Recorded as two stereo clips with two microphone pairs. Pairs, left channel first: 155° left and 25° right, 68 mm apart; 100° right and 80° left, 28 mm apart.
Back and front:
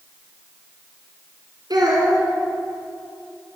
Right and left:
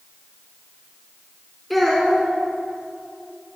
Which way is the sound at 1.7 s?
10° right.